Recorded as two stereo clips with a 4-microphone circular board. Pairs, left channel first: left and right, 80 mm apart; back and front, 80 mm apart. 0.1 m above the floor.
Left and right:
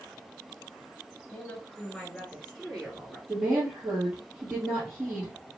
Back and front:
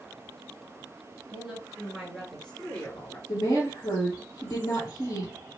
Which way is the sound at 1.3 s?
65° left.